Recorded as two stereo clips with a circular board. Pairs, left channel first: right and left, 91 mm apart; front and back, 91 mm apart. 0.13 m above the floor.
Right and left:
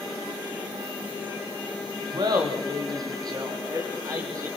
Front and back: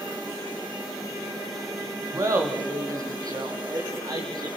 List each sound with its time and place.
2.1 s laughter: 125° left, 6 m; by 4.5 s 140° left, 6.5 m